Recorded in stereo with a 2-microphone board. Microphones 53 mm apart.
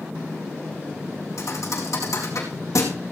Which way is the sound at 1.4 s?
75° left (ahead or behind).